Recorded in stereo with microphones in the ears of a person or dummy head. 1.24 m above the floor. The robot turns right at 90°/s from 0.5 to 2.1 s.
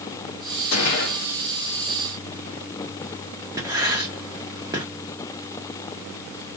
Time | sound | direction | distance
0.7 | a gunshot | 85° left | 2.5 m
3.6 | writing | 20° right (ahead or behind) | 1.3 m